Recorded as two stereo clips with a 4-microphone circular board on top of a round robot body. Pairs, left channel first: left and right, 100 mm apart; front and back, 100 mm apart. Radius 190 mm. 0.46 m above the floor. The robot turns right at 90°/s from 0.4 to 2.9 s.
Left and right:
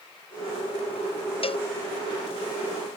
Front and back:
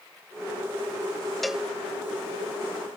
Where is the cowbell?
90° left; by 1.7 s 110° left.